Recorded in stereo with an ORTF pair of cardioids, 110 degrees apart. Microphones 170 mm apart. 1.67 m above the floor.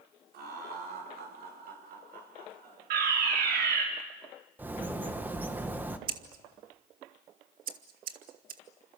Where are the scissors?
55° right, 1.9 m.